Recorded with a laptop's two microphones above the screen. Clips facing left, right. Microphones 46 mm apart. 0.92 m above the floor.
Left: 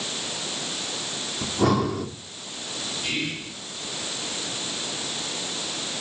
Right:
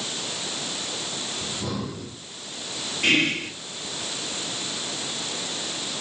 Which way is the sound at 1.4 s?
80° left.